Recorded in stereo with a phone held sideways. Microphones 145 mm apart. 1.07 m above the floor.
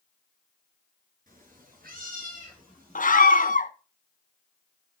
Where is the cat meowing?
70° right (ahead or behind), 2.5 m; by 3.2 s 80° right, 5 m.